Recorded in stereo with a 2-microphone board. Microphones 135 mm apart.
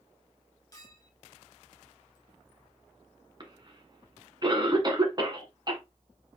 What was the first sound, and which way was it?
A clink, 25° left (ahead or behind).